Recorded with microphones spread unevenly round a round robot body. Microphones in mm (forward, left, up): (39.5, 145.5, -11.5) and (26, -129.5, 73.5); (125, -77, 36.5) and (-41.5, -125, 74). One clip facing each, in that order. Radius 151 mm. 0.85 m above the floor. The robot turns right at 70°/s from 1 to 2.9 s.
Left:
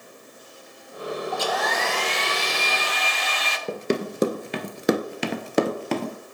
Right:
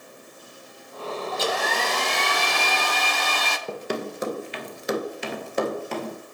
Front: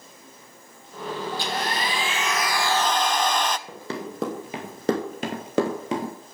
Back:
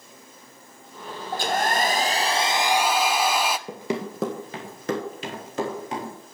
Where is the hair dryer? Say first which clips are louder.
Right 2 dB, back 8 dB; 175° right, 0.6 m; by 3.6 s 65° right, 0.6 m.